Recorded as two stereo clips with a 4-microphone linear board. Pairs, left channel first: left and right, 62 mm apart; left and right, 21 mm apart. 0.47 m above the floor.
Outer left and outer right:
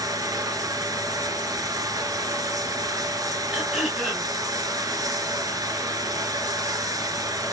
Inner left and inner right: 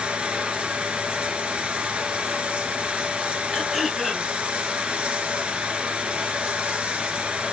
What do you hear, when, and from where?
0.0 s running water: 80° right, 1.5 m
3.5 s throat clearing: 15° right (ahead or behind), 4 m